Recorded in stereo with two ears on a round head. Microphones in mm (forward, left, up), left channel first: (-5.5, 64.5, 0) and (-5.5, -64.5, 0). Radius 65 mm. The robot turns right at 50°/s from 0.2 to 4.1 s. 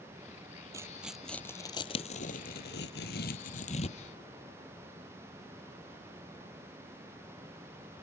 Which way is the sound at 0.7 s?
20° right (ahead or behind).